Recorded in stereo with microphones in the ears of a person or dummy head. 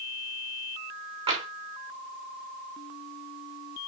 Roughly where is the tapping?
Right.